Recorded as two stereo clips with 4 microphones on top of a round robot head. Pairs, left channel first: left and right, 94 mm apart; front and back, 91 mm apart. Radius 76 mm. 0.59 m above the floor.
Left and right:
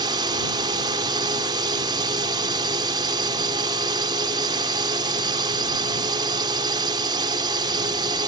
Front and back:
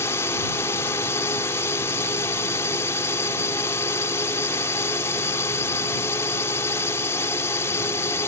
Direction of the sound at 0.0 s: 60° right.